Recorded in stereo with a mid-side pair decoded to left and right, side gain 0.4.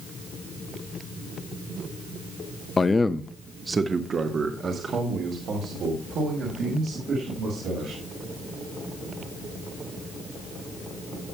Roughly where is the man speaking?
Ahead left.